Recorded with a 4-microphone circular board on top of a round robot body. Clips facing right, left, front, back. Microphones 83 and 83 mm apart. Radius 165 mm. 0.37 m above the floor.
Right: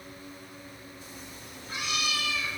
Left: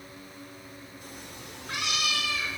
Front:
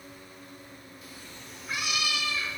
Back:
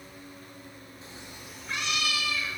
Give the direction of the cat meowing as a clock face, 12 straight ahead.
8 o'clock.